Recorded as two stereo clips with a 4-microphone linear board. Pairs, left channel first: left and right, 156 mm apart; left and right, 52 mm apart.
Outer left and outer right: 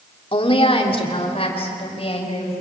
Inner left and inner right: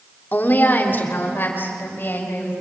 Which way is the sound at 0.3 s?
40° left (ahead or behind).